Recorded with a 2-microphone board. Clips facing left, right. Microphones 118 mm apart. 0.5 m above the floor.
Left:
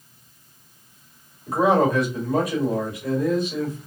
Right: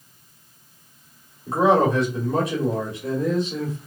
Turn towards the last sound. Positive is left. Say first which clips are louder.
# right 1 dB
turn(degrees=-25)  # may be behind; listen again after turning